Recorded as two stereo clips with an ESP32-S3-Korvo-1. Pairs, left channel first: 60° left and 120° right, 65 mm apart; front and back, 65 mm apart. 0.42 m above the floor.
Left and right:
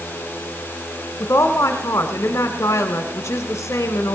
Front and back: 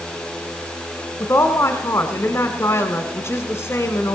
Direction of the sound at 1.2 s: 25° left.